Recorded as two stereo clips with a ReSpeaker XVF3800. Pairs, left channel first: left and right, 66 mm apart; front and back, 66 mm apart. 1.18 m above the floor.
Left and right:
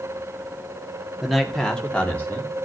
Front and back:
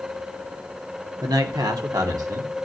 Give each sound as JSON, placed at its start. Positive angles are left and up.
{"t": 1.2, "sound": "a man speaking", "azimuth_deg": -175, "distance_m": 1.9}